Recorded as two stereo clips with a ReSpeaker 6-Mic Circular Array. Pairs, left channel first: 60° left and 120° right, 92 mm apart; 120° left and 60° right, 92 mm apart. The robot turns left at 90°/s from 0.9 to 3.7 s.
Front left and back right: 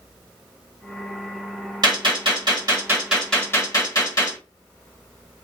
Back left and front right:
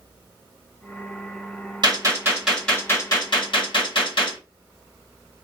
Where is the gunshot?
85° right, 1.4 m; by 4.4 s 110° left, 1.4 m.